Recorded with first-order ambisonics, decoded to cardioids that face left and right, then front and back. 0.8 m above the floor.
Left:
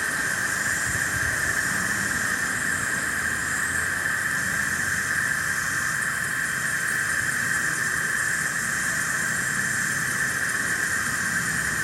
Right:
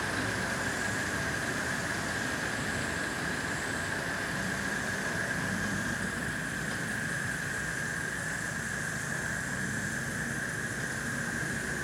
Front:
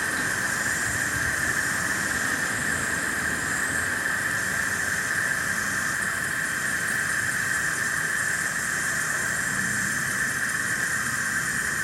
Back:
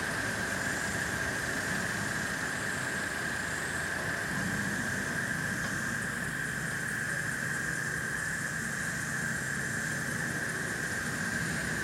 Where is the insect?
55° left, 3 m.